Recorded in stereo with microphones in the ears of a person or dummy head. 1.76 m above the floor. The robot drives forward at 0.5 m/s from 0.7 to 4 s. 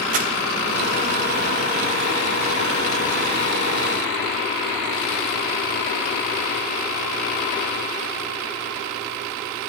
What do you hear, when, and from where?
0.1 s crumpling: 40° right (ahead or behind), 1.1 m